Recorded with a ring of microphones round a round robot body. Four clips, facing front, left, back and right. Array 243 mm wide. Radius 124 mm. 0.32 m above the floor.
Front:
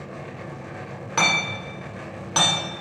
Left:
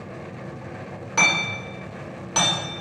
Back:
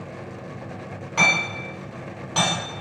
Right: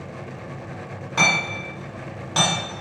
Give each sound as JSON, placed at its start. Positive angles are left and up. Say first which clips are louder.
{"t": 1.2, "sound": "hammering", "louder": "right 1 dB, back 1 dB", "azimuth_deg": 20, "distance_m": 1.3}